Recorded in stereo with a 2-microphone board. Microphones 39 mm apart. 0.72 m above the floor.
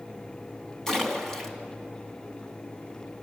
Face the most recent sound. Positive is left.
turn(degrees=15)  # may be behind; listen again after turning